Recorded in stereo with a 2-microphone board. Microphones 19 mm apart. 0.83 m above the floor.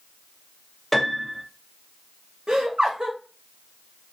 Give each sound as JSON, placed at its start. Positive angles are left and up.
{"t": 0.9, "sound": "a piano", "side_deg": 10, "distance_m": 0.8}
{"t": 2.5, "sound": "laughter", "side_deg": -50, "distance_m": 1.4}